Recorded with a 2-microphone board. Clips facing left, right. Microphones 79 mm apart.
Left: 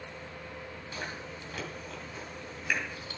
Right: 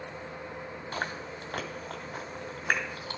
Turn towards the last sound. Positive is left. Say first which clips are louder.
# right 5 dB
turn(degrees=-55)  # may be behind; listen again after turning